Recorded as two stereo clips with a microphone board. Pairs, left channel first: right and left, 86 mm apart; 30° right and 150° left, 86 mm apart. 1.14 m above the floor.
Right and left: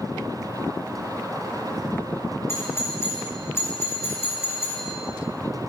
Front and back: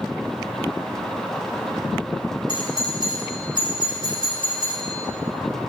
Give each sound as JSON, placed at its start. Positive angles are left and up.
{"t": 2.5, "sound": "a doorbell", "azimuth_deg": -30, "distance_m": 5.5}